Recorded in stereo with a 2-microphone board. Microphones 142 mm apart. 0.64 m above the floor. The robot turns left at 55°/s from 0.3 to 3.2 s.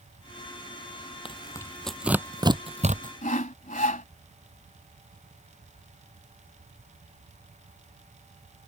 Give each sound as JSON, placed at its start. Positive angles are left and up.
{"t": 1.2, "sound": "tearing paper", "side_deg": 40}
{"t": 3.2, "sound": "sawing", "side_deg": 65}